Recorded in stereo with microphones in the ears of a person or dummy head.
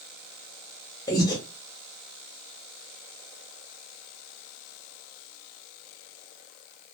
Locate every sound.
1.1 s breathing: 20° left (ahead or behind), 0.6 m